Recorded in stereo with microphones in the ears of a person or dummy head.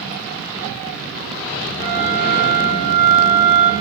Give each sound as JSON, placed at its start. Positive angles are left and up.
{"t": 1.8, "sound": "a flute", "side_deg": -40, "distance_m": 3.5}